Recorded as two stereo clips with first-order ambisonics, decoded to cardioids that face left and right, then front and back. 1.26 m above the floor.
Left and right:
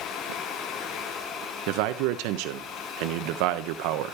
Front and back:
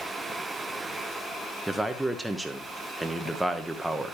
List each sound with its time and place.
1.7 s a man speaking: 95° right, 1.0 m